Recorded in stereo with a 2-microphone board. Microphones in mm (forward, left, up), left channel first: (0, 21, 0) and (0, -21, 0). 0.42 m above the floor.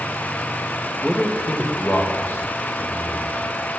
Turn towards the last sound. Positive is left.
turn(degrees=65)  # may be behind; listen again after turning